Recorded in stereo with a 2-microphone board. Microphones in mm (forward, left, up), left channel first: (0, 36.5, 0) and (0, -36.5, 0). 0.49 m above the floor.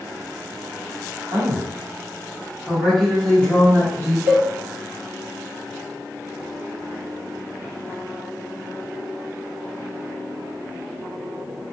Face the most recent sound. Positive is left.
turn(degrees=-30)  # may be behind; listen again after turning